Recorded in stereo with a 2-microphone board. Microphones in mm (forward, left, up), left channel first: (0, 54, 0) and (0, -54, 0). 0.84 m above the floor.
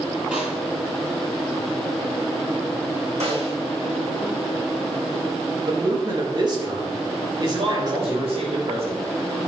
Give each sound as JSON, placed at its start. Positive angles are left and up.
{"t": 0.3, "sound": "a snare drum", "side_deg": -10, "distance_m": 6.0}
{"t": 3.2, "sound": "a snare drum", "side_deg": -80, "distance_m": 6.0}
{"t": 5.7, "sound": "a man speaking", "side_deg": -40, "distance_m": 3.0}
{"t": 7.4, "sound": "a man speaking", "side_deg": -65, "distance_m": 4.0}